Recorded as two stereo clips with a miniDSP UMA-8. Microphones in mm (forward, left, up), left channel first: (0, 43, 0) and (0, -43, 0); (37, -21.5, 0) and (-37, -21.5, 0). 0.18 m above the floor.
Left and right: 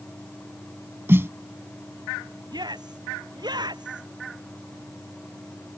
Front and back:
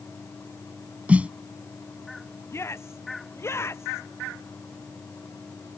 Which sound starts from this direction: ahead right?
A shout, at 2.5 s.